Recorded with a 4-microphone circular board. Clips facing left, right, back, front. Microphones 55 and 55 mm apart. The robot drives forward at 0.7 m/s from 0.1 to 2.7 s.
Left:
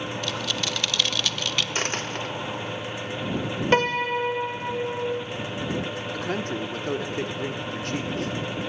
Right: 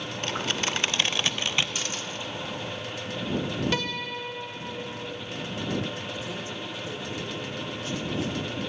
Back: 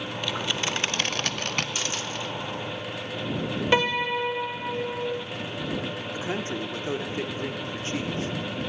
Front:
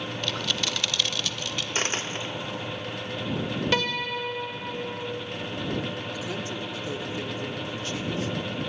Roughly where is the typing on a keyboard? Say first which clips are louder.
Right 4 dB, back 2 dB; right.